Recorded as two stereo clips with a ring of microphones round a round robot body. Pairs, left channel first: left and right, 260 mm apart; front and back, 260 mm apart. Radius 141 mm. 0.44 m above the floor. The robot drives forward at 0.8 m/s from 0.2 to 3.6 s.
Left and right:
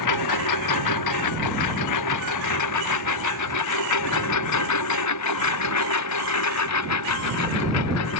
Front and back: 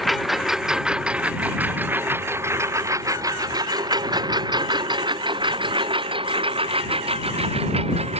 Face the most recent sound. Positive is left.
turn(degrees=115)